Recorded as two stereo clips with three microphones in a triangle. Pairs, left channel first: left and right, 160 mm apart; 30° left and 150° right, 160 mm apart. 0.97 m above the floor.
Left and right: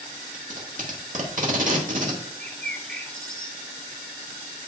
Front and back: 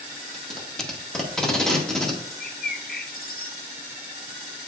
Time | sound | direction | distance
0.3 | tape being pulled | 55° right | 1.7 m
2.4 | a bird | 5° left | 0.7 m